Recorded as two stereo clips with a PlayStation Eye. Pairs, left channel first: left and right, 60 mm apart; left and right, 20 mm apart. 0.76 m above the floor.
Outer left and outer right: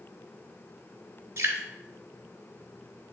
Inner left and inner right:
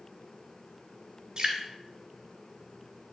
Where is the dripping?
45° right (ahead or behind), 2 m.